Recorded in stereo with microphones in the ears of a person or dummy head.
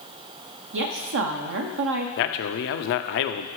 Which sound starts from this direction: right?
A woman speaking, at 0.7 s.